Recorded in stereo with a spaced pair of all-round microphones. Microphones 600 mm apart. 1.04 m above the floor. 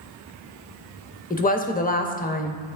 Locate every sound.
1.3 s a woman speaking: 15° left (ahead or behind), 0.5 m